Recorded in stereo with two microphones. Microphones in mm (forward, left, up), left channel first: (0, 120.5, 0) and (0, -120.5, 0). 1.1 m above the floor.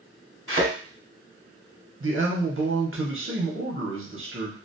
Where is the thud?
55° right (ahead or behind), 1.0 m.